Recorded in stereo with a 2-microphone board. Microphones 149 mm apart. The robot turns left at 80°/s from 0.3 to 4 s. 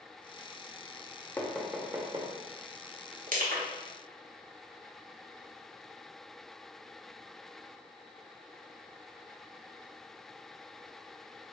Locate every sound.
1.4 s knocking: 15° left (ahead or behind), 0.5 m; by 2.3 s 40° right (ahead or behind), 0.5 m
3.3 s crushing: 60° right (ahead or behind), 0.7 m; by 3.7 s 70° right (ahead or behind), 0.7 m